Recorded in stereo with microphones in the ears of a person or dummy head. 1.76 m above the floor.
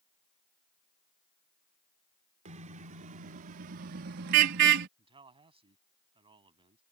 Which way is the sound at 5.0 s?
30° right (ahead or behind).